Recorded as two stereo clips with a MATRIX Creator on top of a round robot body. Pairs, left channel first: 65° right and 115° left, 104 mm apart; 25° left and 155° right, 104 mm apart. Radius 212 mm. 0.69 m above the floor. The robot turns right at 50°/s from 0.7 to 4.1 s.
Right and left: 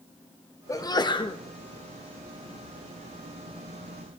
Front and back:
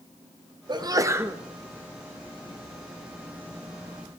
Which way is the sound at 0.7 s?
120° right.